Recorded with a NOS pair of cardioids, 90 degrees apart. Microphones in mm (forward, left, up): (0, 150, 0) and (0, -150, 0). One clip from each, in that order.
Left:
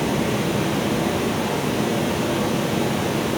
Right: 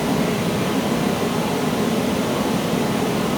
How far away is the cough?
No cough in this recording.